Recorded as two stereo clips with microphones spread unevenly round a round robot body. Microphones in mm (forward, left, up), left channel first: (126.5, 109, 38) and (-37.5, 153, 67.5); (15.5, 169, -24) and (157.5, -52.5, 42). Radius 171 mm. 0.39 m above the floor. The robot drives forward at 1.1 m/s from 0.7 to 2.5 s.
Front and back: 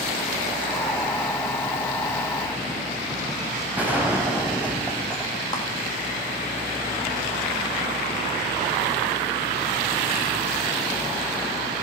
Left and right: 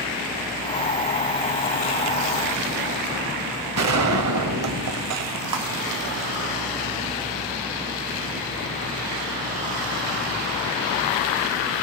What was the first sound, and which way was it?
A gunshot, 110° right.